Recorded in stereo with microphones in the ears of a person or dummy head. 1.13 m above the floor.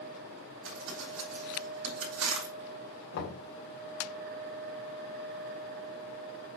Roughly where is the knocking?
Left.